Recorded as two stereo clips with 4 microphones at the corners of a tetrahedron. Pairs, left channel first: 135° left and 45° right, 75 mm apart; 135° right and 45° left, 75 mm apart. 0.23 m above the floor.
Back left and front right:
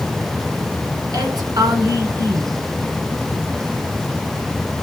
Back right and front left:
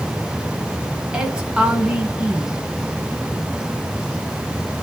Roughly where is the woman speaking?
Ahead right.